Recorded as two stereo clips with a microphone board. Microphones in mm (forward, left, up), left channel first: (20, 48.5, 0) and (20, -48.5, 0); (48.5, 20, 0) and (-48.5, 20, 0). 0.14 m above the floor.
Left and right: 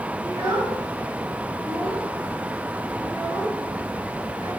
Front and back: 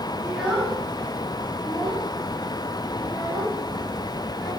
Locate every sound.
0.2 s a child speaking: 115° right, 1.1 m; by 4.5 s 25° right, 4.5 m